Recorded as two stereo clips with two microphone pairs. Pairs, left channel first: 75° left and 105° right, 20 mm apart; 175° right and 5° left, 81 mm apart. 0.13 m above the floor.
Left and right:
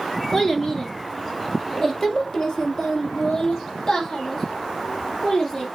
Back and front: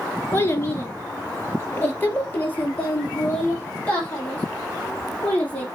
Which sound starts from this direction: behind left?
A child speaking, at 0.3 s.